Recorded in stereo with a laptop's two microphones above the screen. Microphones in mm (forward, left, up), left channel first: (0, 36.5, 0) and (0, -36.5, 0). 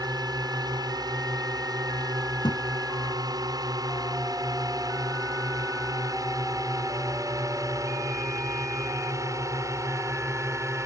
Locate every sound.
0.0 s a drone: 70° right (ahead or behind); by 10.9 s 45° right (ahead or behind)
2.4 s a thud: 85° left